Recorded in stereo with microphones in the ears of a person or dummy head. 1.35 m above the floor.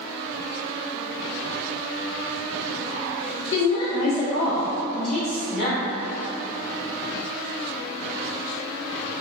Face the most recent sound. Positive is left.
turn(degrees=0)  # may be behind; listen again after turning